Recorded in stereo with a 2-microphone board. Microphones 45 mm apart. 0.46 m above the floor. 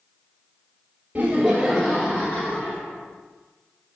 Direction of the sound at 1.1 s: 30° right (ahead or behind).